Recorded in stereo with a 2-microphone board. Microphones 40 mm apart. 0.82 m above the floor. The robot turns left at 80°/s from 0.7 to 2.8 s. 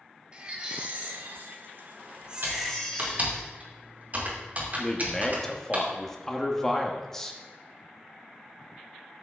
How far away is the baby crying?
About 1.5 m.